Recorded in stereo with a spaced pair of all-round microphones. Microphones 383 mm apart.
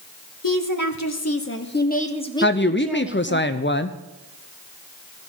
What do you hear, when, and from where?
0.4 s a woman speaking: 60° left (ahead or behind), 1.3 m; by 3.4 s 10° right (ahead or behind), 1.5 m
2.4 s a woman speaking: 30° left (ahead or behind), 0.5 m